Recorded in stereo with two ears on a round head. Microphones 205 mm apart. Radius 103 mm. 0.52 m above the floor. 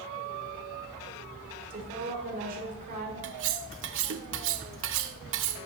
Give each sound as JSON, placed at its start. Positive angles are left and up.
{"t": 1.7, "sound": "a woman speaking", "side_deg": -40, "distance_m": 2.0}
{"t": 3.2, "sound": "cutlery clinking", "side_deg": -55, "distance_m": 0.6}